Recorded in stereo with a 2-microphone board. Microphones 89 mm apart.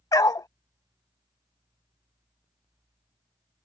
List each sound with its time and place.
0.1 s a dog barking: 45° left (ahead or behind)